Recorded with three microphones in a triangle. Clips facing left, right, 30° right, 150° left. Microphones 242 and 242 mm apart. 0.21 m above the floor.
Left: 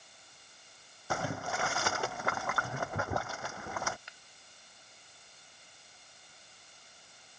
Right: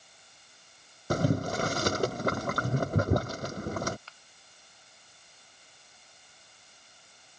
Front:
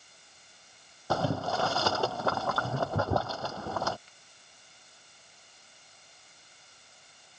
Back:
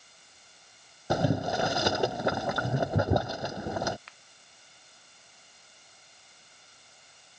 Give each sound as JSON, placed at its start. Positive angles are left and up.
{"t": 1.1, "sound": "boiling", "azimuth_deg": -135}
{"t": 4.1, "sound": "a finger snap", "azimuth_deg": 165}